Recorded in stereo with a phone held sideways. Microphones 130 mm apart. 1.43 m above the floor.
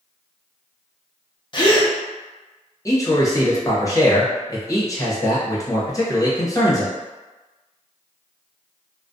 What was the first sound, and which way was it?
A gasp, 40° left (ahead or behind).